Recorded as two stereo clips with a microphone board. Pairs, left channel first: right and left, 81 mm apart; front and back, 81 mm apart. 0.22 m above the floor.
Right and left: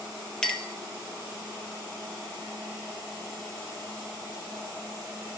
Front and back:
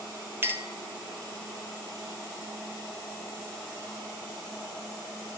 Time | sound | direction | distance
0.4 | a clink | 160° right | 0.7 m